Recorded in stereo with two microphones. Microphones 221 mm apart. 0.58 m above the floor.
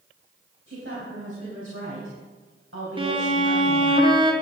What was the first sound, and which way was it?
A woman speaking, 75° right (ahead or behind).